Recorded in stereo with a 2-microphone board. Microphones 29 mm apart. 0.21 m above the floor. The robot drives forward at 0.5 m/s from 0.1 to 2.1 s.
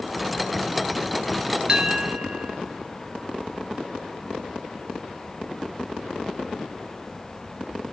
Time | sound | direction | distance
1.7 | a bell | 25° right (ahead or behind) | 0.6 m